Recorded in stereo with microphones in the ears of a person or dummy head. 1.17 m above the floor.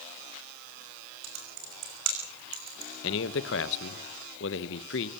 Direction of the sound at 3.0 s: 65° left (ahead or behind).